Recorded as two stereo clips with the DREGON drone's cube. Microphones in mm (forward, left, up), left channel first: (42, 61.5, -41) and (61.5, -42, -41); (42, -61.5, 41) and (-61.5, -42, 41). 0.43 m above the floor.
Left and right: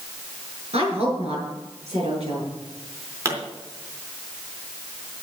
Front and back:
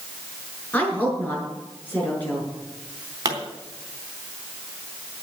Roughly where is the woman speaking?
Right.